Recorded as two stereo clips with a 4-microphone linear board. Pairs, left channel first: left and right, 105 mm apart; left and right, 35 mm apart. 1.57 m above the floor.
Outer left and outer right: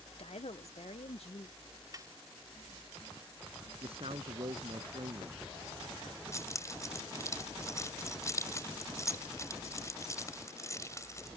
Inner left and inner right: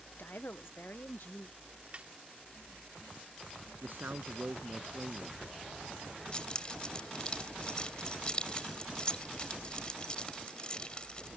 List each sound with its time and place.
0.2 s a woman speaking: 65° left (ahead or behind)
1.9 s a snare drum: 35° right (ahead or behind)
3.8 s a man speaking: 65° right (ahead or behind)
6.3 s keys jangling: 30° left (ahead or behind)